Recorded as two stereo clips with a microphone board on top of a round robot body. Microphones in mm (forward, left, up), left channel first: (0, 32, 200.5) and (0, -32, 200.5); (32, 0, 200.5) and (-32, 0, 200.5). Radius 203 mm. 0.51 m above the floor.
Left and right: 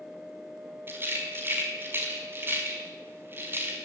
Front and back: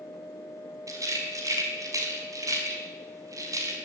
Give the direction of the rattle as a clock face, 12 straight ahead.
5 o'clock.